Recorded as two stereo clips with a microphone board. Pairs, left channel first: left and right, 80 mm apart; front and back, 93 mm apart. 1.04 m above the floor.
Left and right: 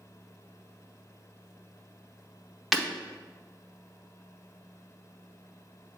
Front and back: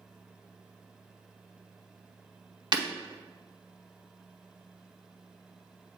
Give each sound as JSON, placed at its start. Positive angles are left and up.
{"t": 2.7, "sound": "breaking glass", "azimuth_deg": -175, "distance_m": 0.8}